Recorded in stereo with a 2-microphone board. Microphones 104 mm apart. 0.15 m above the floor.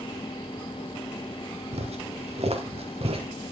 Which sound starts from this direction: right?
Footsteps, at 1.7 s.